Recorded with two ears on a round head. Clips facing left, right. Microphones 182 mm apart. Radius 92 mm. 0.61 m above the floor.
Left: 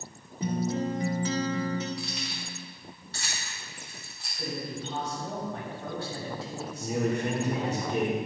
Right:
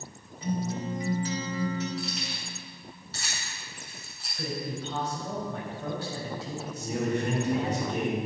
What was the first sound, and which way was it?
A guitar, 40° left (ahead or behind).